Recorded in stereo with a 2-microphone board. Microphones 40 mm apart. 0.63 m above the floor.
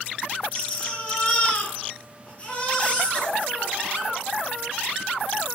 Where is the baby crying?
35° left (ahead or behind), 2.5 m.